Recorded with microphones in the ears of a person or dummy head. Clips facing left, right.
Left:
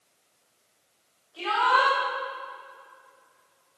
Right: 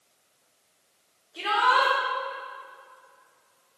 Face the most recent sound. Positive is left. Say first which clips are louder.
# even
turn(degrees=-30)  # may be behind; listen again after turning